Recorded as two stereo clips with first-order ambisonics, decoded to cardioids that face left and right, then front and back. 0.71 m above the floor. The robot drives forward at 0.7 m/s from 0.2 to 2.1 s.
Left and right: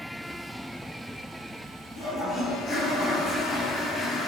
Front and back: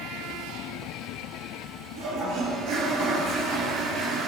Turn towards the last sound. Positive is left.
turn(degrees=150)